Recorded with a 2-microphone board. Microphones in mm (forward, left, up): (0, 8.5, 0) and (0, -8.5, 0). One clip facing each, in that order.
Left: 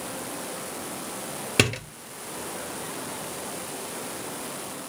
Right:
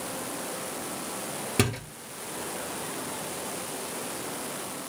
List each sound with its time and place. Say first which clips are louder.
1.6 s a door slam: left 5 dB; 40° left (ahead or behind), 1.7 m